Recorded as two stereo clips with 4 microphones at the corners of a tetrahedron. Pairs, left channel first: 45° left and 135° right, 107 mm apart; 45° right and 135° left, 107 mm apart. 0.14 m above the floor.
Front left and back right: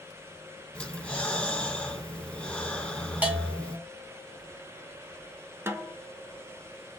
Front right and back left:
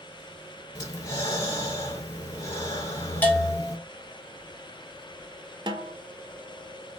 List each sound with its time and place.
0.8 s breathing: 25° right, 1.2 m
3.2 s a bell: 85° right, 1.3 m
5.7 s a snare drum: 165° left, 0.5 m